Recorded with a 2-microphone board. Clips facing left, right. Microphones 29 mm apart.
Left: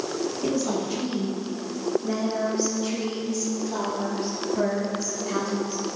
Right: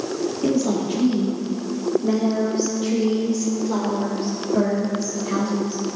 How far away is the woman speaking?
About 3.5 m.